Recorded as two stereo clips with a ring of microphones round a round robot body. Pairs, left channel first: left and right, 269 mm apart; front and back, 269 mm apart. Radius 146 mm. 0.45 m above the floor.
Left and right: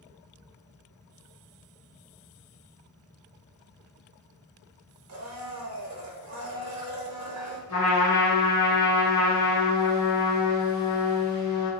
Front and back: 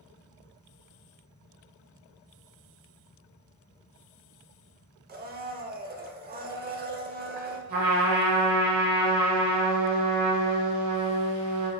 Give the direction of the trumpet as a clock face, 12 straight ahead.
6 o'clock.